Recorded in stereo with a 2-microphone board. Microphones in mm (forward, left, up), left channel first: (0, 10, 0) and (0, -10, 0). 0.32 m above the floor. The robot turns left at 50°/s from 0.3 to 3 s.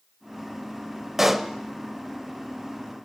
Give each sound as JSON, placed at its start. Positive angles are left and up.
{"t": 1.2, "sound": "a pop", "side_deg": -15, "distance_m": 0.6}